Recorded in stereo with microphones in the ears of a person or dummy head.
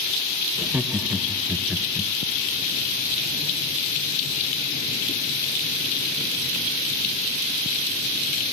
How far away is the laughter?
About 0.9 m.